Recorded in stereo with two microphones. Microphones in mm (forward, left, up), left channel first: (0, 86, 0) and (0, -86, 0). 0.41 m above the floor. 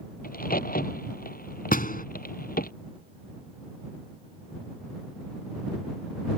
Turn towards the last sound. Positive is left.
turn(degrees=55)  # may be behind; listen again after turning